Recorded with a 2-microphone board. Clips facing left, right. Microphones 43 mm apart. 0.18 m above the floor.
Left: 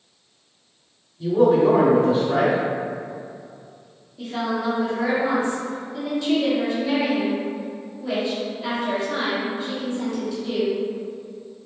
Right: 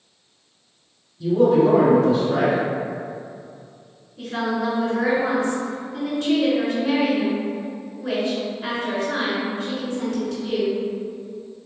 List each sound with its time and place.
1.2 s a man speaking: 15° left (ahead or behind), 1.2 m
4.2 s a woman speaking: 50° right (ahead or behind), 2.0 m